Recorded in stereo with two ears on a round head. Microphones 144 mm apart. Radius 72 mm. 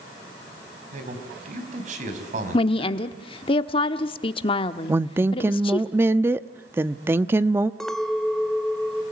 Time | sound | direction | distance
0.9 | a man speaking | 50° right (ahead or behind) | 4.5 m
2.5 | a woman speaking | 35° left (ahead or behind) | 1.0 m
4.9 | a woman speaking | 15° right (ahead or behind) | 0.6 m
7.8 | a clink | 5° left (ahead or behind) | 1.8 m